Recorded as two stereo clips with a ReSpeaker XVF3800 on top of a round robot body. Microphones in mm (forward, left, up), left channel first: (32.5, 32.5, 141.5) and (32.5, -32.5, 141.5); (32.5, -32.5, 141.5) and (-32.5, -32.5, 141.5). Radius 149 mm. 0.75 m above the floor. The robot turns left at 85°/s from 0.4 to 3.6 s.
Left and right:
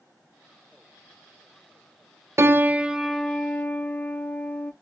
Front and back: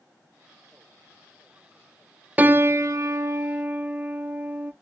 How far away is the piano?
About 0.5 m.